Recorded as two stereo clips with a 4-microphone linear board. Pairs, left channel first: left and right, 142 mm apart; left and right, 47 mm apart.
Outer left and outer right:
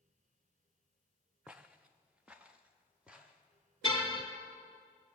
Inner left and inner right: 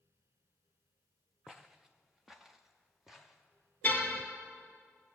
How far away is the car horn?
About 2.5 m.